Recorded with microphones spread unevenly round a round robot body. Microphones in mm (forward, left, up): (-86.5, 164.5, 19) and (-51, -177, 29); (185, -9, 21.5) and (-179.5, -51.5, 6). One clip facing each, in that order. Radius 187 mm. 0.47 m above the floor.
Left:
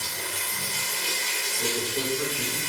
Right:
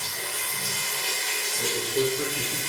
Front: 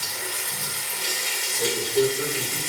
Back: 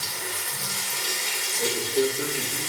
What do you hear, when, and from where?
0.0 s running water: 15° left, 1.0 m
1.6 s a man speaking: 65° right, 1.3 m